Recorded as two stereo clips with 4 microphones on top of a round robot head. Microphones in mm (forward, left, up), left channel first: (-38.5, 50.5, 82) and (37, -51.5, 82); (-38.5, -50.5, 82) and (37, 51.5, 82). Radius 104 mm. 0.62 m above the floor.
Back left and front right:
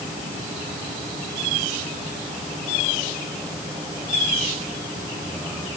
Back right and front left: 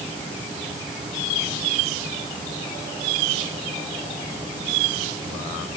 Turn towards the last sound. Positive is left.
No sound to turn to.